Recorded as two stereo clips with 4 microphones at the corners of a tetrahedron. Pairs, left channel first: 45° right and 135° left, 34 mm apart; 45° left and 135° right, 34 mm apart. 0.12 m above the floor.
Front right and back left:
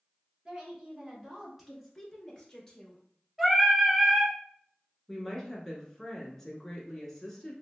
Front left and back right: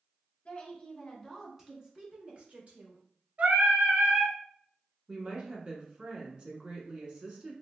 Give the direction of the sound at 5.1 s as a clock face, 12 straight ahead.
4 o'clock.